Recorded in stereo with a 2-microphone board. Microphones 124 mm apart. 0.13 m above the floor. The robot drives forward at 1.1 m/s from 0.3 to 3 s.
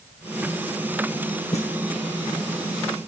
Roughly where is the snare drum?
Left.